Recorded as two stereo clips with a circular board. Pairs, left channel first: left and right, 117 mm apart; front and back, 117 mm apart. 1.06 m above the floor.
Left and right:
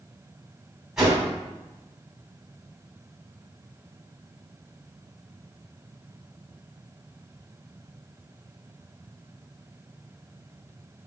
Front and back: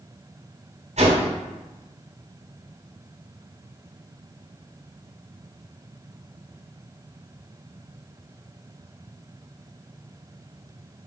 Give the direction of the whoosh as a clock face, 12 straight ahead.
6 o'clock.